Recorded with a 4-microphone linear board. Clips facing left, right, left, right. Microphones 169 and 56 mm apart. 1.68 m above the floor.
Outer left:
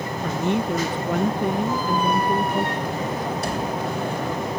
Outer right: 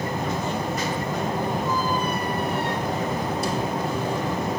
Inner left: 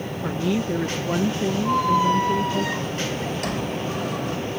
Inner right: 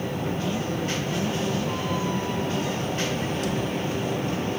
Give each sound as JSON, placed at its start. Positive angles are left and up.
{"t": 0.2, "sound": "a woman speaking", "side_deg": 65}
{"t": 1.6, "sound": "a squeak", "side_deg": 60}